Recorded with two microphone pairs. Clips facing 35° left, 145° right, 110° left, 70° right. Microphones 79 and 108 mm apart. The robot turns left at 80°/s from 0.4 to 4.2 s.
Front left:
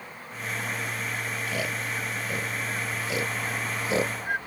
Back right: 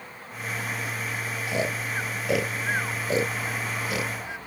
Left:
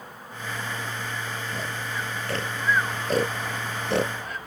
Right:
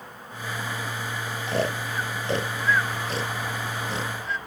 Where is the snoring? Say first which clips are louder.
Back right 5 dB, right 6 dB; 70° right; by 4.4 s 75° left.